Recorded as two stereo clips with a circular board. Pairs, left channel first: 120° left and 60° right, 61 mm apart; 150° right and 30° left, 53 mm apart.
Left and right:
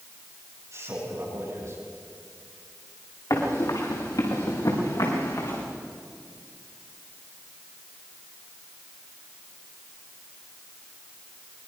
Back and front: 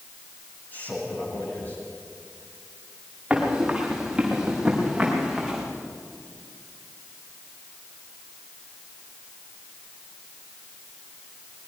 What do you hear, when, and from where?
0.7 s a man speaking: 95° right, 9.5 m
3.3 s running footsteps: 105° left, 6 m; by 5.6 s 115° left, 6 m